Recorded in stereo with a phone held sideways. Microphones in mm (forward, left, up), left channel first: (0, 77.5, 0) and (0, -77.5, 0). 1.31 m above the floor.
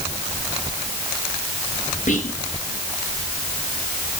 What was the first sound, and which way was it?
Whispering, 55° left (ahead or behind).